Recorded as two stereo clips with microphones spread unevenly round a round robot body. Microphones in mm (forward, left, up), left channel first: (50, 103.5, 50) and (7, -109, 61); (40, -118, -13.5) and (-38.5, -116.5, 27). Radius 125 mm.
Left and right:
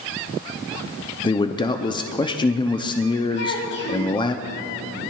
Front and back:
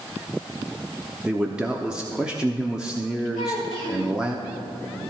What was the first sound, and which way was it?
A man speaking, 45° left.